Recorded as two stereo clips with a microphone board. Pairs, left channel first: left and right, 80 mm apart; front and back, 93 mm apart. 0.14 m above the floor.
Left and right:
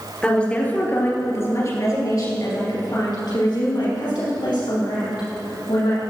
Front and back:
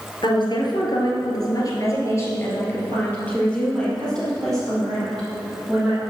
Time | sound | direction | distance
0.2 | a woman speaking | 15° left | 2.5 m